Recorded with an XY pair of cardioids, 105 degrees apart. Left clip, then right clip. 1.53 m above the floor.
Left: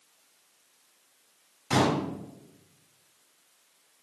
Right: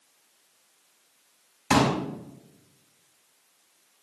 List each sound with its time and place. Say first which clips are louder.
1.7 s a pop: right 3 dB; 70° right, 6 m